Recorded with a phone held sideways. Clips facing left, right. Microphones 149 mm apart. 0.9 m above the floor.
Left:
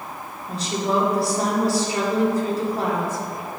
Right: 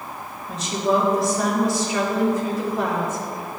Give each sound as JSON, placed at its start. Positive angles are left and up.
{"t": 0.5, "sound": "a woman speaking", "side_deg": 35, "distance_m": 2.0}